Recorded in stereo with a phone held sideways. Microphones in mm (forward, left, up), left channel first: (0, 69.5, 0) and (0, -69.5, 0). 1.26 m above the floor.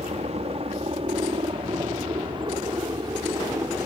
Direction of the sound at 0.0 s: 50° right (ahead or behind).